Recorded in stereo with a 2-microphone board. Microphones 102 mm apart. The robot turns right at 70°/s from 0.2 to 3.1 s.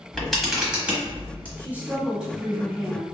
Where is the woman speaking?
20° right (ahead or behind), 1.0 m; by 3.1 s 10° left (ahead or behind), 1.0 m.